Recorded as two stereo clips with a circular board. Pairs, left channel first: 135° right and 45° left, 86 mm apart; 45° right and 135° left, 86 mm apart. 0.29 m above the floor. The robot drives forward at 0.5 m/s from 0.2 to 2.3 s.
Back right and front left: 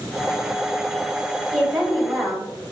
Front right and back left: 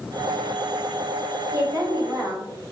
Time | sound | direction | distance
1.5 | a woman speaking | 135° left | 1.6 m